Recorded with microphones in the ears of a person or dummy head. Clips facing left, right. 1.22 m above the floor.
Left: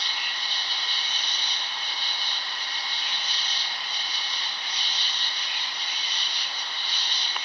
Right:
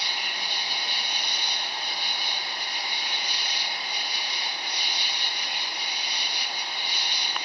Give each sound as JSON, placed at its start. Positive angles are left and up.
{"t": 0.0, "sound": "an insect", "side_deg": -10}